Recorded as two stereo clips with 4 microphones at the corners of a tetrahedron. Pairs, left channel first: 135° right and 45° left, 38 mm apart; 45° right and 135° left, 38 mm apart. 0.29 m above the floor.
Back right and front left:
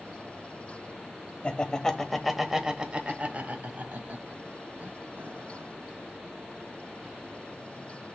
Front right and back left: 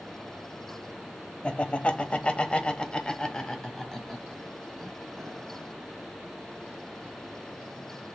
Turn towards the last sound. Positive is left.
turn(degrees=40)